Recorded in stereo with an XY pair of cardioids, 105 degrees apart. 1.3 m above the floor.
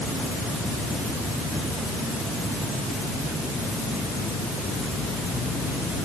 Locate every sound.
Only background noise.